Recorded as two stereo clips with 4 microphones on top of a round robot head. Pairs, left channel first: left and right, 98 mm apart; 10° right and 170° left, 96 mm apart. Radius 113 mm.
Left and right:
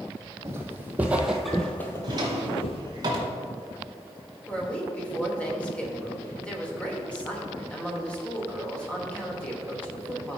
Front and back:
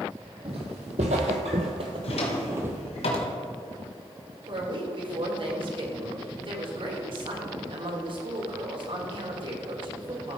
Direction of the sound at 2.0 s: 35° right.